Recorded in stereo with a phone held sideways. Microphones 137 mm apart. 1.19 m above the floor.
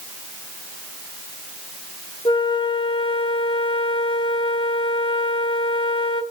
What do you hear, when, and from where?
2.2 s a flute: 35° left (ahead or behind), 1.0 m